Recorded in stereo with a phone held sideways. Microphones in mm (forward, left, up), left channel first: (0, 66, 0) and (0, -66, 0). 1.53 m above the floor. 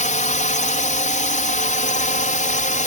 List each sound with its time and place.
0.0 s a drone: 70° left (ahead or behind)